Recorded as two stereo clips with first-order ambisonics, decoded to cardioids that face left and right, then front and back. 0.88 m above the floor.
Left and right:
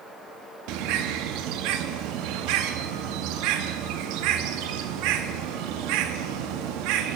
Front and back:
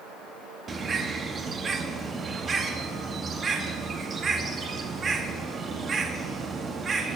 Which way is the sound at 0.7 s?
110° right.